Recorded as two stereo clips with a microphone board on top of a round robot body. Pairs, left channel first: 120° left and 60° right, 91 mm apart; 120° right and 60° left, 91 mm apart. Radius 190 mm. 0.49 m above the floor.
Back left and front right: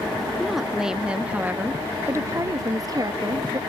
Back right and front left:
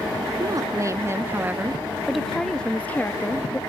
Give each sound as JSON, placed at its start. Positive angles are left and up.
{"t": 0.4, "sound": "a woman speaking", "azimuth_deg": 30}